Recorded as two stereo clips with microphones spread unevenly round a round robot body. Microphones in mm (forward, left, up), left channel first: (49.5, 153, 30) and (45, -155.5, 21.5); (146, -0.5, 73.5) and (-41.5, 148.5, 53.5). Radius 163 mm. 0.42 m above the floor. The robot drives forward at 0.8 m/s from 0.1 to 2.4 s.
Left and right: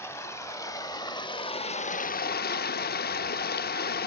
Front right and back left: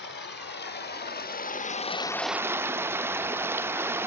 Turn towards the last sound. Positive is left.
turn(degrees=80)